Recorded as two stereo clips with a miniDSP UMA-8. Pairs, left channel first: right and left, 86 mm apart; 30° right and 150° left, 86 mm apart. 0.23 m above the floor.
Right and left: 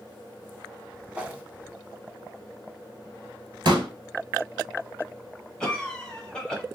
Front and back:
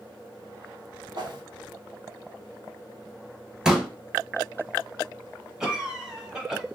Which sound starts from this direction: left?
A pop, at 3.6 s.